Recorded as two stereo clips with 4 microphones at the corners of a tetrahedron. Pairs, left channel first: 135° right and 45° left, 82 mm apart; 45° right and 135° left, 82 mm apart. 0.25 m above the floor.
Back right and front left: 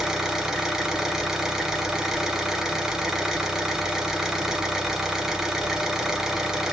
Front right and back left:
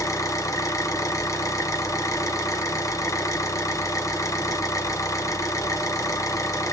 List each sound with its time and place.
0.0 s an engine running: 35° right, 1.0 m